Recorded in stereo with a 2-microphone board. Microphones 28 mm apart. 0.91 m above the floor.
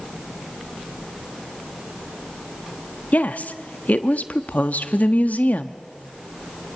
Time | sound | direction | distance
3.1 | a woman speaking | 70° left (ahead or behind) | 1.2 m